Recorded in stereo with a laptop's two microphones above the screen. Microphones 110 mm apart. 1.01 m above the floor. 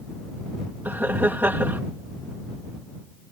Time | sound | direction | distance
0.8 | laughter | 15° right (ahead or behind) | ?